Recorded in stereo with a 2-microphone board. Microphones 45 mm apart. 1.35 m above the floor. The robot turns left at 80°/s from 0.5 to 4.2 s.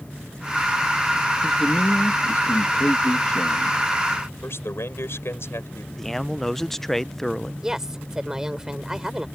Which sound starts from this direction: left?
A man speaking, at 4.4 s.